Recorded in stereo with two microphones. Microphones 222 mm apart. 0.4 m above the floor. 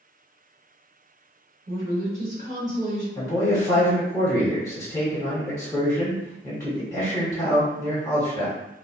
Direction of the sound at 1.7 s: 45° right (ahead or behind).